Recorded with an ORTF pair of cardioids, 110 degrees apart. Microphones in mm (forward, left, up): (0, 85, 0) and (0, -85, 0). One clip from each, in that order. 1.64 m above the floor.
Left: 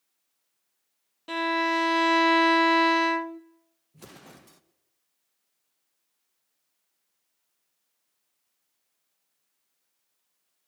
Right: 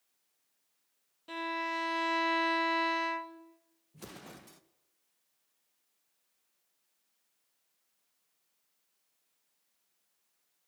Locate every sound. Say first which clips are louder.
1.3 s a violin: left 10 dB; 40° left, 0.6 m
3.9 s an explosion: even; straight ahead, 1.1 m